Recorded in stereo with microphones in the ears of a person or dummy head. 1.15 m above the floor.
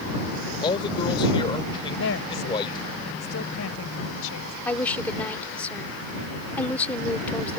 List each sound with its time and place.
0.6 s a man speaking: 25° left (ahead or behind)
2.0 s a woman speaking: 75° left (ahead or behind)
4.7 s a woman speaking: 10° left (ahead or behind)